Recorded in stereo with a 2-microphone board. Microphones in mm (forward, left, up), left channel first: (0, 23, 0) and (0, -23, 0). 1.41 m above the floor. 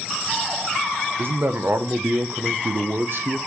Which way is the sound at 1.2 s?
55° right (ahead or behind).